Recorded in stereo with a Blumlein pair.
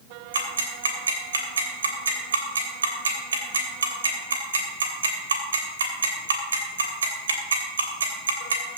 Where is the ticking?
70° right, 3 m.